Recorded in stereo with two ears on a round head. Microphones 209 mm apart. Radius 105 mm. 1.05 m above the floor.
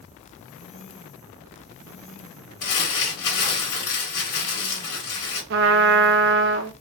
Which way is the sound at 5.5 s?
50° right (ahead or behind).